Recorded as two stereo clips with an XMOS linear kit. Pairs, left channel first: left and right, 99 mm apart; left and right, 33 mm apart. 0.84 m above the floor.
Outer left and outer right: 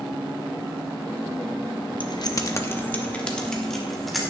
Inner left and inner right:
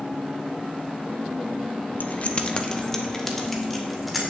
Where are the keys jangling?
55° left (ahead or behind), 0.8 m; by 4.3 s centre (ahead or behind), 2 m.